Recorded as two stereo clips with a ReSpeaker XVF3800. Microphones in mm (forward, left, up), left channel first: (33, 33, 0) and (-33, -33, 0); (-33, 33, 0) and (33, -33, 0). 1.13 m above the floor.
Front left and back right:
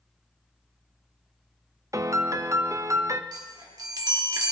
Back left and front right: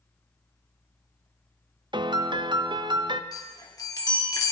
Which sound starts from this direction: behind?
A chime, at 3.3 s.